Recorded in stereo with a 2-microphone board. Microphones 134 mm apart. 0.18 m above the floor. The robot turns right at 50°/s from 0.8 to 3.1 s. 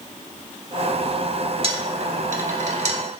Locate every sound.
1.6 s a dropped coin: 50° right (ahead or behind), 0.8 m; by 3.0 s 55° right (ahead or behind), 0.8 m